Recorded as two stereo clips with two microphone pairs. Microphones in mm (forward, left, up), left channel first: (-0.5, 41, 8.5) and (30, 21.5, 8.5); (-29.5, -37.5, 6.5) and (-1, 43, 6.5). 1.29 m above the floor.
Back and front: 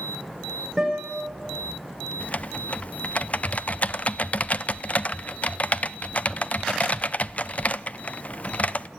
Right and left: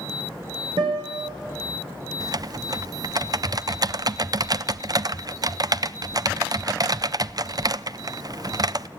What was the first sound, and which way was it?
A guitar, 60° left.